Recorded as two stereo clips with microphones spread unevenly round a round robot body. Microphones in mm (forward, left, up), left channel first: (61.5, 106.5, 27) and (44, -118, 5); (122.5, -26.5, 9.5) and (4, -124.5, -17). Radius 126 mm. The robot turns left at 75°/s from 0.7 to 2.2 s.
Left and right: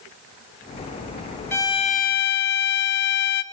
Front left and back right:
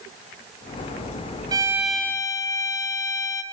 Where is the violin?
170° left, 0.9 m; by 3.4 s 120° left, 0.9 m.